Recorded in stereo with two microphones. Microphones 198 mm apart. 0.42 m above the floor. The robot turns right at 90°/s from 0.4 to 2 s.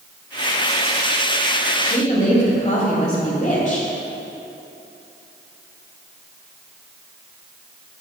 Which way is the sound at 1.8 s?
55° left (ahead or behind).